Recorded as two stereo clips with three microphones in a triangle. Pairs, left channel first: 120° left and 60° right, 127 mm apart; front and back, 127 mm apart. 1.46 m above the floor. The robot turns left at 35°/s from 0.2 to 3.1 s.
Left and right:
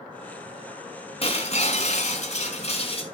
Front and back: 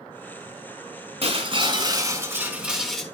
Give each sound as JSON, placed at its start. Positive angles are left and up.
{"t": 1.2, "sound": "breaking glass", "azimuth_deg": 150, "distance_m": 2.5}